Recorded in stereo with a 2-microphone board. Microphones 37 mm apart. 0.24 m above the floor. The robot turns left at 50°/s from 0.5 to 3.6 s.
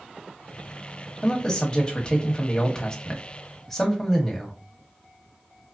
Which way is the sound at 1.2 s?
15° left (ahead or behind).